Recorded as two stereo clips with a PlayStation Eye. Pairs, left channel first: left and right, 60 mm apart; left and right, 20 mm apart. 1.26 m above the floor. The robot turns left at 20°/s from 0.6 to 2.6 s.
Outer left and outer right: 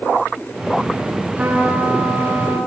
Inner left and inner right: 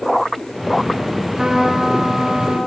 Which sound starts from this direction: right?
A trumpet, at 1.4 s.